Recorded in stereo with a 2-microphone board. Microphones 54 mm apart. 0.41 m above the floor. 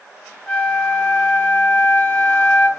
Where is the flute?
15° left (ahead or behind), 1.6 m.